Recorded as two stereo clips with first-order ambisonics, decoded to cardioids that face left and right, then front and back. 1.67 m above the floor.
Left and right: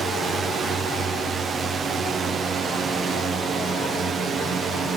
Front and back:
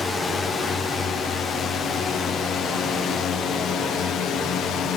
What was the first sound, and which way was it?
A drone, 45° right.